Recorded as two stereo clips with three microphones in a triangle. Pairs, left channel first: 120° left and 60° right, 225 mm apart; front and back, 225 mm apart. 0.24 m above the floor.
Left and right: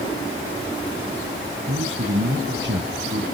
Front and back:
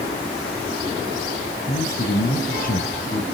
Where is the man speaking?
40° right, 2.5 m.